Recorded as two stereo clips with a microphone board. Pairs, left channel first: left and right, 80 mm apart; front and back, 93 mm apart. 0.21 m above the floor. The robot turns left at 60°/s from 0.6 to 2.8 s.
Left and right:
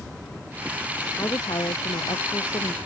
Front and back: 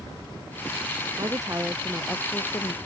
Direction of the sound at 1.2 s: 140° left.